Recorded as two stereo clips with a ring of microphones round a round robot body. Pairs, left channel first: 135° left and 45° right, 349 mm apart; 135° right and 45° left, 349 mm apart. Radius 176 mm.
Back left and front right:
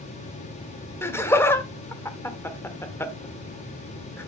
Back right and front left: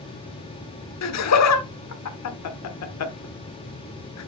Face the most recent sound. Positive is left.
turn(degrees=-145)